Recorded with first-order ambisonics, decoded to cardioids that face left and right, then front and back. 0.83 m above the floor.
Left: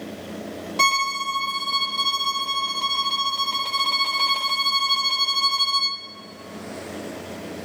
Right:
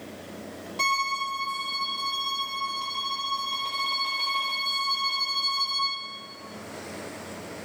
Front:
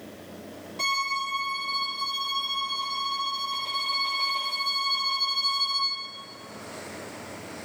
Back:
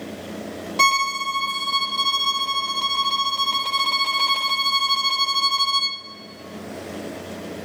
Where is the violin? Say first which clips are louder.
Left 5 dB, back 8 dB; 150° left, 1.0 m.